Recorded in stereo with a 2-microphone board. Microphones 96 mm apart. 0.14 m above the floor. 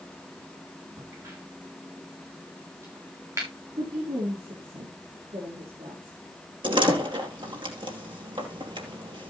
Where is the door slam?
55° right (ahead or behind), 3 m.